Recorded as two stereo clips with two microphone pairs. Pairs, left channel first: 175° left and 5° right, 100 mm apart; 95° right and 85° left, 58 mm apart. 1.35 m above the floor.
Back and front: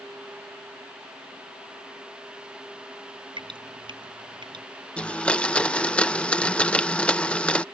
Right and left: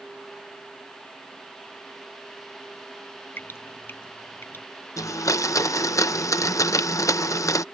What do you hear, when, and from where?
3.4 s dripping: 45° right
5.0 s a blender: 110° right